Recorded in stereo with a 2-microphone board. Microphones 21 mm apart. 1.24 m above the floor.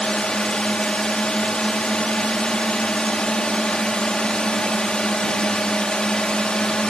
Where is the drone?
45° left (ahead or behind).